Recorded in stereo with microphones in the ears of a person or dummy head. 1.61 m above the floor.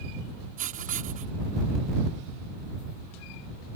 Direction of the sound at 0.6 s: 40° right (ahead or behind).